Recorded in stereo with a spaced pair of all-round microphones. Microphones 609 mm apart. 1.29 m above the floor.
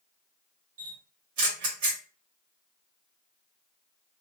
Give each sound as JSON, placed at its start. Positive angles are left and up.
{"t": 0.8, "sound": "a camera shutter", "side_deg": -75, "distance_m": 0.8}